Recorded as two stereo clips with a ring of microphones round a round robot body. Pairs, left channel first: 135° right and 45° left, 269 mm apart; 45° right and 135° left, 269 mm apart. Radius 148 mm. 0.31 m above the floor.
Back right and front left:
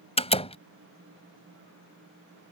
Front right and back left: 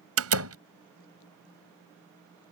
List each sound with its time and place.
0.2 s a door slam: 160° left